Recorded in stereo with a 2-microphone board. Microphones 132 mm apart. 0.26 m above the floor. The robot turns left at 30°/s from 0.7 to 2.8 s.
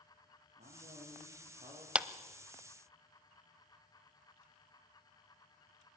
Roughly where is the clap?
Centre.